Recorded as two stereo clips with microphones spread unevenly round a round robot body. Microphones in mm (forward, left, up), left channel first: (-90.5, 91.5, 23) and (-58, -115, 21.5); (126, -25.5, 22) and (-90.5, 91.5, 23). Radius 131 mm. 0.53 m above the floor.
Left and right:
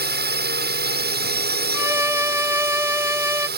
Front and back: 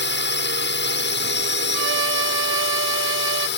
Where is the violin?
160° right.